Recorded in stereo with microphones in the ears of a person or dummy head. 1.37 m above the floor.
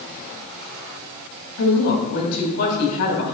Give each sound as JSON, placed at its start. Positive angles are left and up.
{"t": 1.6, "sound": "a woman speaking", "side_deg": 50, "distance_m": 2.5}